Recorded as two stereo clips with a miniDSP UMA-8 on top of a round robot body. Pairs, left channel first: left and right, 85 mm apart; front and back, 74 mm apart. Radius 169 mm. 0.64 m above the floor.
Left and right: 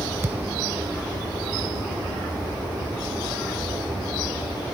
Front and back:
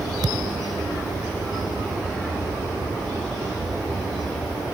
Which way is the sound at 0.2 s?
150° right.